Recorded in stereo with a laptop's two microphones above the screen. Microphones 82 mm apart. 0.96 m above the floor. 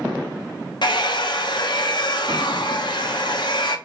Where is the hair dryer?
65° left (ahead or behind), 0.6 m.